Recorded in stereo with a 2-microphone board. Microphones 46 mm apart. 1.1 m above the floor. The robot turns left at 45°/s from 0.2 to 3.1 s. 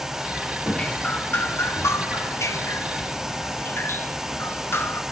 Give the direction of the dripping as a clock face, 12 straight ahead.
6 o'clock.